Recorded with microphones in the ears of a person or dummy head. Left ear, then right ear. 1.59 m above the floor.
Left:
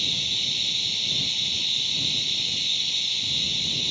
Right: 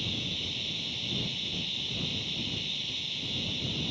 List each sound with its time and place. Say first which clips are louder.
0.0 s running water: left 9 dB; 35° left (ahead or behind)